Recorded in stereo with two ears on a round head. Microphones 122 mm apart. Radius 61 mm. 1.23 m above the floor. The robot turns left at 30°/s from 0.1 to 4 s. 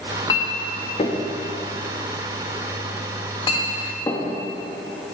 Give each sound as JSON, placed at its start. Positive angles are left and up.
{"t": 0.3, "sound": "a clink", "side_deg": 30, "distance_m": 0.8}